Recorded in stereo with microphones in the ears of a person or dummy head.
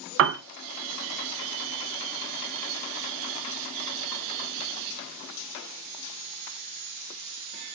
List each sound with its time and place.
0.2 s a piano: 70° right (ahead or behind), 0.9 m